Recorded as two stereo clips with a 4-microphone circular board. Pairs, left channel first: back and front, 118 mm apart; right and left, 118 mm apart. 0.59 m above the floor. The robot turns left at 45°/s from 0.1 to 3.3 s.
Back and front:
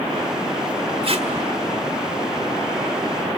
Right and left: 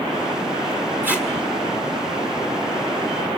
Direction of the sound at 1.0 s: 20° left.